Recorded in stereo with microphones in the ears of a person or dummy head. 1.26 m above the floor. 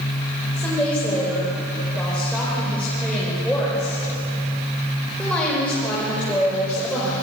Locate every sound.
0.5 s a woman speaking: 5° left (ahead or behind), 6 m